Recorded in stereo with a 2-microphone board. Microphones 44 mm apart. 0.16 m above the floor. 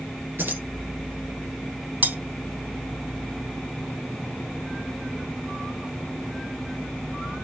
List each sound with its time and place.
0.4 s keys jangling: 55° right (ahead or behind), 1.9 m
2.0 s cutlery clinking: 50° right (ahead or behind), 3 m